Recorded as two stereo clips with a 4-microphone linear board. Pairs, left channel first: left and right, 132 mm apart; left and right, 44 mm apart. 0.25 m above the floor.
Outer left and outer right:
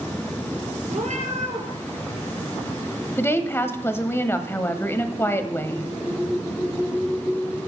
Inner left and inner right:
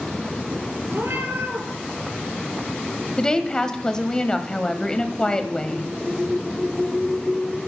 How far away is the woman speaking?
About 0.9 m.